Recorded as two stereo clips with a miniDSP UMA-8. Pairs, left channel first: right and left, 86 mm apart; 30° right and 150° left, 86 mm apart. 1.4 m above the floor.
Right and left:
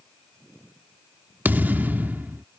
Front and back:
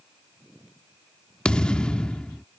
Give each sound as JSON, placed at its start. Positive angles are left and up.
{"t": 1.4, "sound": "a thud", "azimuth_deg": 40}